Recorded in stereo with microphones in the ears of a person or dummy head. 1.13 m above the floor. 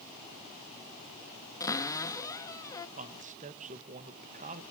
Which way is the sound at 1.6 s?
15° left (ahead or behind).